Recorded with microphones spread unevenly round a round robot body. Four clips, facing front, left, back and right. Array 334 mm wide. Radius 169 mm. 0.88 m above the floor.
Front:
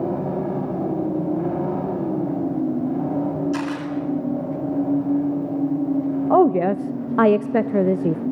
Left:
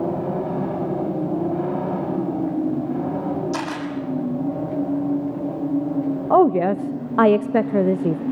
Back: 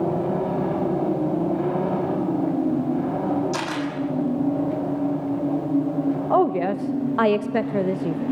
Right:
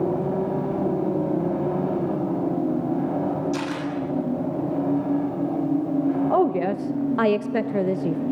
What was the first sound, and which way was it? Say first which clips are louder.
A camera shutter: left 1 dB, front 1 dB; 90° left.